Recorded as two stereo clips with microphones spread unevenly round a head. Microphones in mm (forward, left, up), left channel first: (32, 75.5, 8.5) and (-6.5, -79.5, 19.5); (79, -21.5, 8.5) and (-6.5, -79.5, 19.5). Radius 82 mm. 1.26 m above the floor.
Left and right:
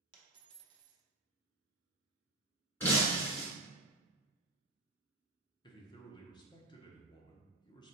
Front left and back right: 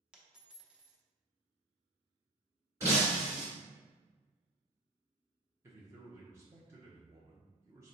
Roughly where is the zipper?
I don't hear a zipper.